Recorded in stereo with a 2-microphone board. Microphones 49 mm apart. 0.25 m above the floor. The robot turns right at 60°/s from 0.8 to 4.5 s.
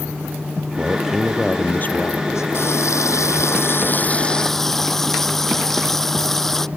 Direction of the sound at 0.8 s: 25° right.